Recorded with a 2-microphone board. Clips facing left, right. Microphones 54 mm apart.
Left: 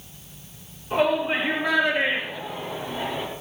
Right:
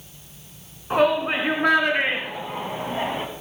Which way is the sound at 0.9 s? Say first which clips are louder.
Right 2 dB; 65° right (ahead or behind).